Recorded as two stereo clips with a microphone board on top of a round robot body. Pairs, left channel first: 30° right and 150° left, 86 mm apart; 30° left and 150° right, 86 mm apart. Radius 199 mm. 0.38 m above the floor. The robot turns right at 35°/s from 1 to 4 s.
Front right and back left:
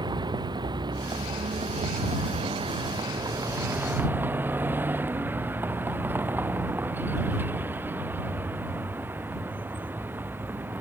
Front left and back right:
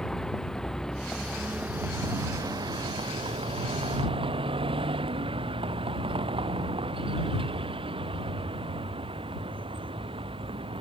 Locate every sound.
0.0 s a vehicle: 115° left; by 10.8 s 140° right